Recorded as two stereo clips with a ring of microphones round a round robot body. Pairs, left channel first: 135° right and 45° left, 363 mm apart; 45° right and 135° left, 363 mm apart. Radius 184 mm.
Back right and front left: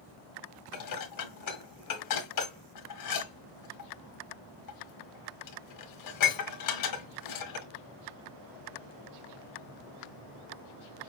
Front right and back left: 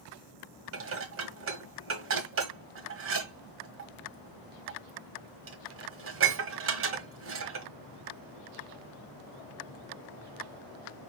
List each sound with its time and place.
0.7 s dishes clattering: 170° right, 1.4 m